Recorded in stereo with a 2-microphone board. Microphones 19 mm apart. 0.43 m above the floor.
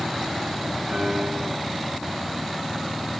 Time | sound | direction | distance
0.9 | a piano | 65° right (ahead or behind) | 4.5 m